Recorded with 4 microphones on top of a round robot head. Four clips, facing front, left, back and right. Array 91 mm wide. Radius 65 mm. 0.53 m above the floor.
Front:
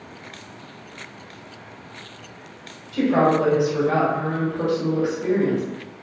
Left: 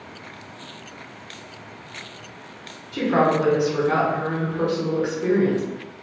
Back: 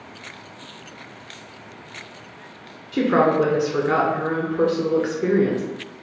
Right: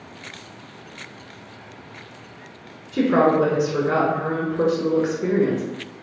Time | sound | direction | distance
2.9 | a woman speaking | 165° right | 1.5 m